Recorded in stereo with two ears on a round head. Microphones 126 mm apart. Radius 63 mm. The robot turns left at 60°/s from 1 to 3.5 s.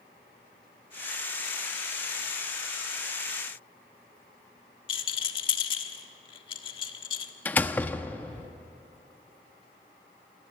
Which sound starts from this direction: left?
A rattle, at 4.9 s.